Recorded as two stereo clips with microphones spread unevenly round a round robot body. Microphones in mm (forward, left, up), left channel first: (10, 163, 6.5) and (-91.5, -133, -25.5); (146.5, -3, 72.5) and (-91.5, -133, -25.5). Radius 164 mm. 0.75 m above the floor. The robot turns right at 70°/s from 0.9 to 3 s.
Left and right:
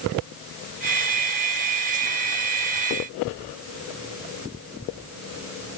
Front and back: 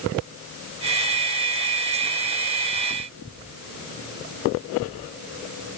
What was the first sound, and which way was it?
Only background noise.